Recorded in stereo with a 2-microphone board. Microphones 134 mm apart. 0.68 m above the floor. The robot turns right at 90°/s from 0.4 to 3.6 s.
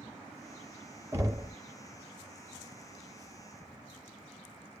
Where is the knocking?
165° right, 0.8 m; by 1.5 s 125° right, 0.8 m.